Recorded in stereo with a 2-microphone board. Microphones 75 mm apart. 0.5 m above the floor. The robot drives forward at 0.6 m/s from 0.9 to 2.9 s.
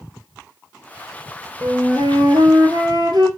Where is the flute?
70° right (ahead or behind), 1.5 m; by 3.3 s 75° right (ahead or behind), 1.4 m.